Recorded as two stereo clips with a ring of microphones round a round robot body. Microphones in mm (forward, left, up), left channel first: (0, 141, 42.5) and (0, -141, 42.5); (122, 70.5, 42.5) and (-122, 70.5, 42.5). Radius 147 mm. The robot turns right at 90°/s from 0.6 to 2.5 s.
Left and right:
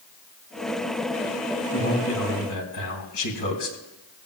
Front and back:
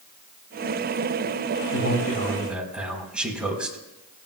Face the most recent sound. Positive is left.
turn(degrees=95)